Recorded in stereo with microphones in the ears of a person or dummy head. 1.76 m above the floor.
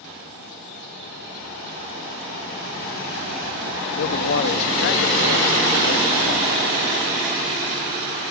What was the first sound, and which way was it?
A man speaking, 65° left (ahead or behind).